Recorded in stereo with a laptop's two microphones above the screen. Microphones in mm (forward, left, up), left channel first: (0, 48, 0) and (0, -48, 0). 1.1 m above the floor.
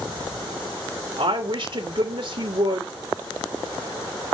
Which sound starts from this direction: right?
A woman speaking, at 1.2 s.